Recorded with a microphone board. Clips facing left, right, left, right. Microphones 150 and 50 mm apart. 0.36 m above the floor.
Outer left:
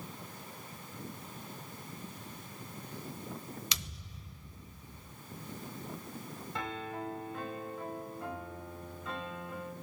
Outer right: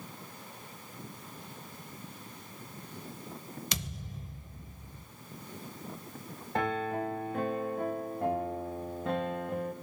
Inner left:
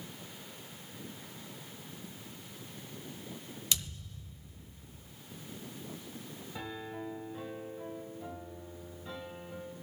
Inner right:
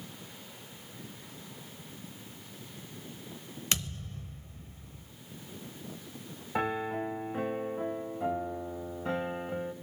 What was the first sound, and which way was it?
A thud, 45° right (ahead or behind).